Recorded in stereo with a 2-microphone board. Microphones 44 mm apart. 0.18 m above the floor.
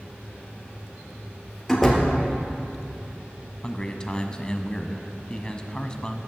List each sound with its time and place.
1.7 s a door slam: 5° left (ahead or behind), 2.5 m
3.6 s a man speaking: 20° left (ahead or behind), 1.0 m